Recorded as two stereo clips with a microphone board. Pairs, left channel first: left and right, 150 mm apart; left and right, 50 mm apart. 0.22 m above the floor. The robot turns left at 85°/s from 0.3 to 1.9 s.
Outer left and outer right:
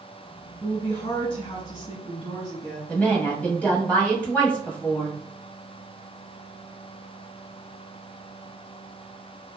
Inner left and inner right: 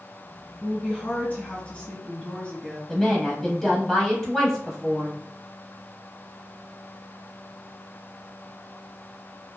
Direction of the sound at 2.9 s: 10° left (ahead or behind).